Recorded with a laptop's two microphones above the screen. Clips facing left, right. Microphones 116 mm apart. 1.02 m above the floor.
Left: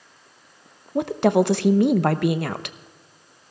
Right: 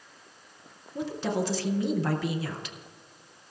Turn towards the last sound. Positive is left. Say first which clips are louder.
# left 11 dB
turn(degrees=65)  # may be behind; listen again after turning